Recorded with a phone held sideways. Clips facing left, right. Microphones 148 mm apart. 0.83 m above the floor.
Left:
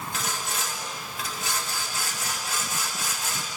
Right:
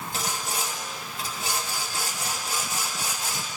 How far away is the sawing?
About 2.5 m.